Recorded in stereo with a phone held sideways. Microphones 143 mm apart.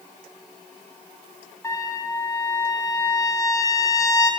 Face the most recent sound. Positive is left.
turn(degrees=20)  # may be behind; listen again after turning